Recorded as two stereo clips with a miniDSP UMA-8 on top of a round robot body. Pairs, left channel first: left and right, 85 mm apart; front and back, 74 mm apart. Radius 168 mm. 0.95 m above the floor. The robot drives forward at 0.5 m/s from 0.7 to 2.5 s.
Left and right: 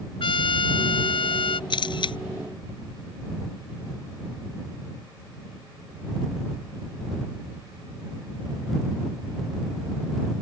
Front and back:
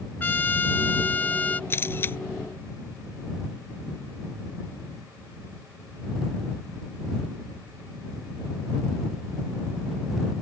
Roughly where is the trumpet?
Left.